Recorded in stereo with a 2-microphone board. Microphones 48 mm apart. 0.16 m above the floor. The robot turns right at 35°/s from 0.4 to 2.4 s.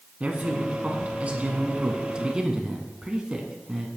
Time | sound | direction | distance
0.2 | a man speaking | 105° right | 1.6 m